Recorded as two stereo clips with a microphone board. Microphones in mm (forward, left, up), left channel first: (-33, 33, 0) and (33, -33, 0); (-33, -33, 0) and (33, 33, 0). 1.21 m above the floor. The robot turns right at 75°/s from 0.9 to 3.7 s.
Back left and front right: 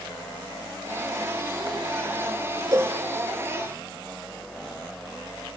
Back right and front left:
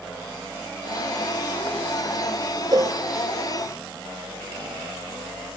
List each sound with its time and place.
2.7 s a cowbell: 5° left, 1.0 m; by 3.0 s 25° left, 1.0 m